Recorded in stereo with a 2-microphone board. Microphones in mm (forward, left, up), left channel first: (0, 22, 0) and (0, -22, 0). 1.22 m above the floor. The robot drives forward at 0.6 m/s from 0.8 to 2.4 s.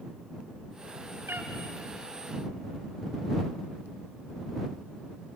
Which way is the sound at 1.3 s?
75° right (ahead or behind).